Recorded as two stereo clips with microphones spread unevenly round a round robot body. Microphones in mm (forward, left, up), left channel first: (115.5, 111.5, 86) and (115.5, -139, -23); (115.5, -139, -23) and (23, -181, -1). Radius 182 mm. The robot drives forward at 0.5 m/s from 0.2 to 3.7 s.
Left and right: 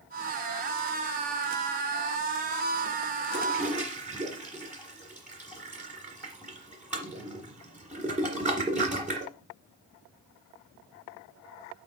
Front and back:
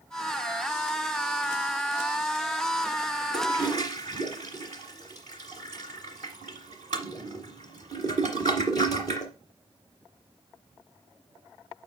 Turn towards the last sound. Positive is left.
turn(degrees=-175)